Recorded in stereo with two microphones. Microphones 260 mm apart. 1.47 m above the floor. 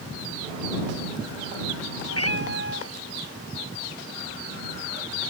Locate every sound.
2.1 s a cat meowing: 65° left (ahead or behind); by 5.3 s 55° left (ahead or behind)